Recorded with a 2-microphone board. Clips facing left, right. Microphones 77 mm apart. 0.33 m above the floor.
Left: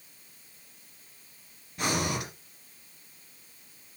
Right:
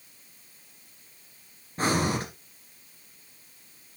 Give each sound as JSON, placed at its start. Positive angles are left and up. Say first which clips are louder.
{"t": 1.8, "sound": "breathing", "louder": "right 4 dB", "side_deg": -40, "distance_m": 2.0}